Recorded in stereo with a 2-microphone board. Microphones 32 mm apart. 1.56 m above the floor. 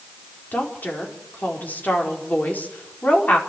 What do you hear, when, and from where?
0.5 s a woman speaking: 60° left (ahead or behind), 4.5 m